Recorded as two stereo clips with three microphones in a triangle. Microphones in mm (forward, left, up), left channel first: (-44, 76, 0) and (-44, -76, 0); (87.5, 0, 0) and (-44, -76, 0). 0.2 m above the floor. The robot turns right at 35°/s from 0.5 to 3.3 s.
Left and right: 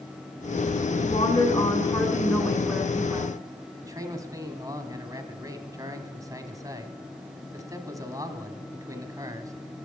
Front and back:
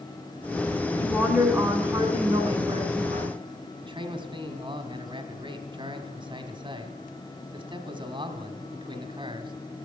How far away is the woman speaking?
About 2.5 m.